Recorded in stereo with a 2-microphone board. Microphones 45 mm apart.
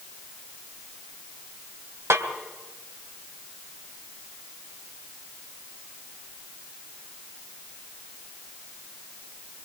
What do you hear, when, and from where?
2.1 s a snare drum: 70° right (ahead or behind), 3.5 m